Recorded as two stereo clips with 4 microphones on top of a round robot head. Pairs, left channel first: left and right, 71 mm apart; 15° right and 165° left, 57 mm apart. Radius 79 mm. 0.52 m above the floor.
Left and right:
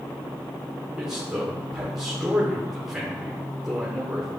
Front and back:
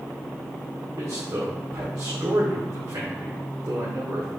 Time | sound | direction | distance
1.0 | a man speaking | 170° right | 1.6 m